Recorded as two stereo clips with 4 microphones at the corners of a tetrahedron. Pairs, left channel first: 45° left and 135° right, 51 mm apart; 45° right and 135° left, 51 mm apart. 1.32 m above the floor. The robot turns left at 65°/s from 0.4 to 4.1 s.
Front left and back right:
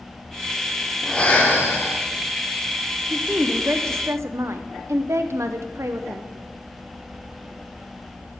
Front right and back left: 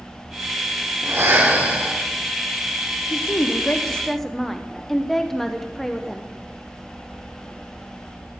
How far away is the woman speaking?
About 0.7 m.